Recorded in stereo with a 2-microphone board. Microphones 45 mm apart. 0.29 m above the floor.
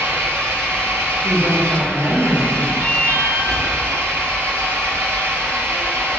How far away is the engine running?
About 2 m.